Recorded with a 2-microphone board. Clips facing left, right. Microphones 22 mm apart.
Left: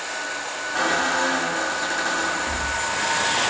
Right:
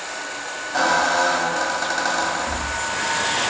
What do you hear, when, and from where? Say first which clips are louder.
0.7 s a squeak: right 4 dB; 60° right (ahead or behind), 1.6 m